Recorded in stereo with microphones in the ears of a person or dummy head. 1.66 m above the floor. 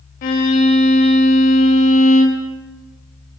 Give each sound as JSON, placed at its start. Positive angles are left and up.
{"t": 0.2, "sound": "a violin", "side_deg": 50, "distance_m": 1.9}